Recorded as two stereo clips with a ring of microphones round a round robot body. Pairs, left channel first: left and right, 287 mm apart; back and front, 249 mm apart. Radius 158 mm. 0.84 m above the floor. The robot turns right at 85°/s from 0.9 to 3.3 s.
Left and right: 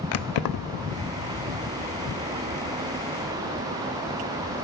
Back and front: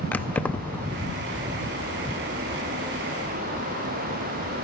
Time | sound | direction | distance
0.1 | keys jangling | 95° left | 0.5 m